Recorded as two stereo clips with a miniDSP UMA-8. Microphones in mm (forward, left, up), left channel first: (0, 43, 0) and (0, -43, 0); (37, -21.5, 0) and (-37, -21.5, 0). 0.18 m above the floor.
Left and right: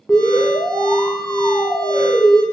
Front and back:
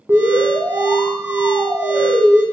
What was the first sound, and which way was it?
An alarm, 165° left.